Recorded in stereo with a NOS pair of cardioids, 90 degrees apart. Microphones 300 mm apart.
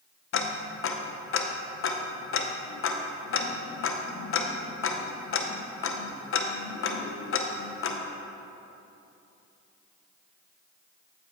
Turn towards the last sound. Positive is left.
turn(degrees=45)